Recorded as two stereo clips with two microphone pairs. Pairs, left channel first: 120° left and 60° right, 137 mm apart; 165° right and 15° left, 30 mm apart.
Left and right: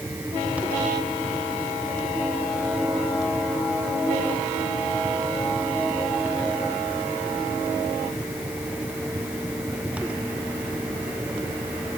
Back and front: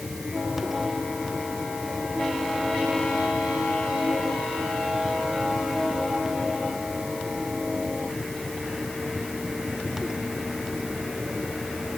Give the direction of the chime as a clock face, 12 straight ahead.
No chime in this recording.